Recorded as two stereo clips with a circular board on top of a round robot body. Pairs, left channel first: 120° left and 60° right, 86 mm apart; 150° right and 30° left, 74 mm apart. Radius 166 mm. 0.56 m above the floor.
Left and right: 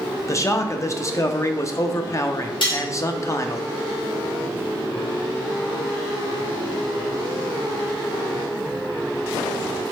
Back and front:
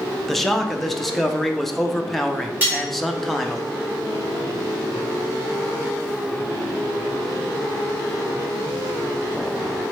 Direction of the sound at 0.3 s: 120° left.